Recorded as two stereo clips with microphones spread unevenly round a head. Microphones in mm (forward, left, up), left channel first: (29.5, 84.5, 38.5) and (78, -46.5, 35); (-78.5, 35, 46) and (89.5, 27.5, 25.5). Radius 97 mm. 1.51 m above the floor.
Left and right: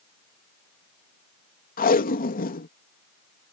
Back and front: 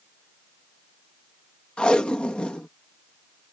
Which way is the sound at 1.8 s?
95° left.